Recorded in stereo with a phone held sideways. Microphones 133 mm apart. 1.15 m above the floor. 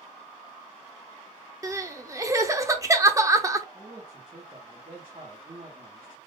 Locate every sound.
1.6 s crying: 25° right (ahead or behind), 0.8 m
3.7 s a man speaking: 40° right (ahead or behind), 1.6 m